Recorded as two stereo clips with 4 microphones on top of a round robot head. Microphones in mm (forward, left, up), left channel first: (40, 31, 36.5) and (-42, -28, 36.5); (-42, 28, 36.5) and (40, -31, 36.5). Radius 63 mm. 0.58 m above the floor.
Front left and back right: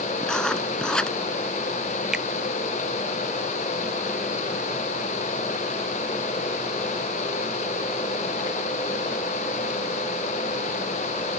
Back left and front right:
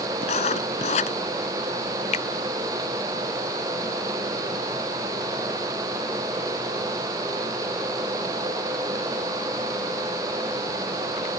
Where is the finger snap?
130° left.